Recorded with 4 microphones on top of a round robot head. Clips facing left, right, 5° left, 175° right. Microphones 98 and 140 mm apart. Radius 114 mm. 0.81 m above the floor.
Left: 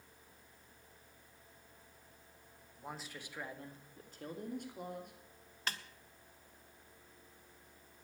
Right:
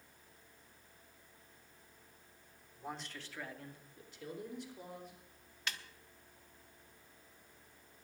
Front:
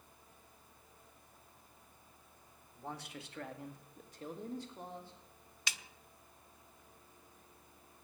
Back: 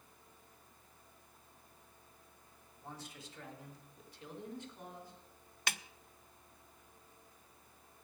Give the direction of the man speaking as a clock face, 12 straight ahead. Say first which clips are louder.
Right 2 dB, front 5 dB; 12 o'clock.